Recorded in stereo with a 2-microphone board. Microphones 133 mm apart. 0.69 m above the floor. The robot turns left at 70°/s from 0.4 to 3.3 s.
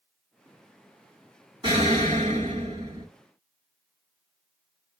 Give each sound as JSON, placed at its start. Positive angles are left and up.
{"t": 1.6, "sound": "an explosion", "azimuth_deg": -45, "distance_m": 2.0}